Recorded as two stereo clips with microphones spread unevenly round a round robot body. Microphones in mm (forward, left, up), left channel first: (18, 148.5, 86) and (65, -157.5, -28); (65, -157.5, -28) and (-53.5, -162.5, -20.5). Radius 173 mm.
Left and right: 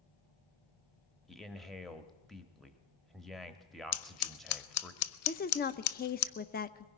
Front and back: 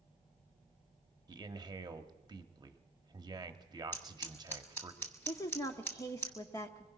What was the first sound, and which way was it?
A man speaking, 140° right.